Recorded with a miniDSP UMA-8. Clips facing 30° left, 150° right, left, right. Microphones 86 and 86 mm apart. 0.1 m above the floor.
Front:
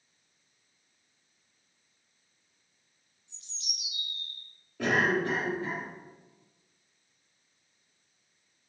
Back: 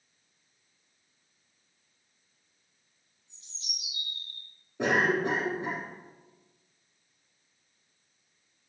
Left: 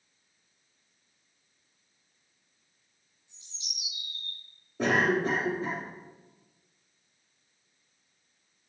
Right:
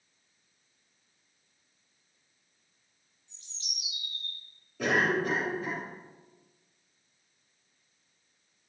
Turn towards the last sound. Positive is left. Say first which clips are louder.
# back 1 dB, left 2 dB
turn(degrees=145)